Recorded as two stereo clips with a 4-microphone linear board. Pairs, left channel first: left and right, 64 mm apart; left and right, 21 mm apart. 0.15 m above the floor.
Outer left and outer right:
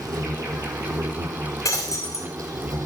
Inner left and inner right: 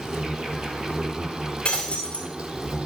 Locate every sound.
0.0 s an insect: 70° right (ahead or behind), 1.4 m
1.6 s breaking glass: 55° left (ahead or behind), 2.5 m